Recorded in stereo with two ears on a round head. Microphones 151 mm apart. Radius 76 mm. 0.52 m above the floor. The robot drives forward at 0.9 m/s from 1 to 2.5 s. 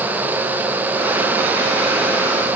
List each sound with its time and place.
Only background noise.